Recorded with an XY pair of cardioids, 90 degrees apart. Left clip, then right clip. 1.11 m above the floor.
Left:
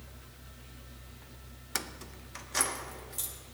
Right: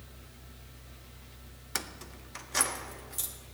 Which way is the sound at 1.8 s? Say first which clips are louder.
Even; 5° right.